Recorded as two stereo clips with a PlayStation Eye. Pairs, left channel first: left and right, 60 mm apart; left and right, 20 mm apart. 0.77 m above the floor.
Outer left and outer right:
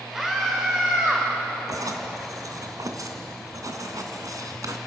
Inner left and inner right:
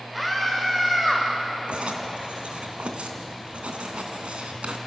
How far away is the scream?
About 2.5 m.